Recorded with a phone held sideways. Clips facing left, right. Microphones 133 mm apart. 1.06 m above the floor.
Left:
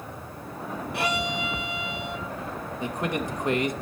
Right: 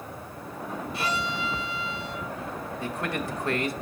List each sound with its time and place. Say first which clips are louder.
0.9 s a violin: left 3 dB; 65° left (ahead or behind), 2 m
2.8 s a man speaking: left 3 dB; 20° left (ahead or behind), 1.1 m